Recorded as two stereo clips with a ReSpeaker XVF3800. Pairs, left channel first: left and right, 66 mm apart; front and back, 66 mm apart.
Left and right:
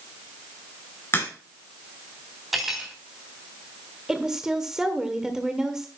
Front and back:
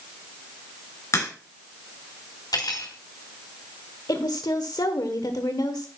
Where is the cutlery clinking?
5° right, 4.5 m.